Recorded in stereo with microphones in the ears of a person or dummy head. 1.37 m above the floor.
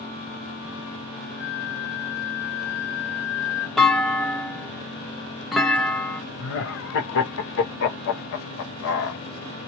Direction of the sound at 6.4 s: 65° left (ahead or behind).